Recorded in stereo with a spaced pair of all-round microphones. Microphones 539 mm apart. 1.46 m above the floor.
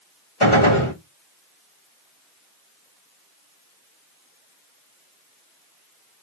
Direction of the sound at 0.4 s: 65° left (ahead or behind).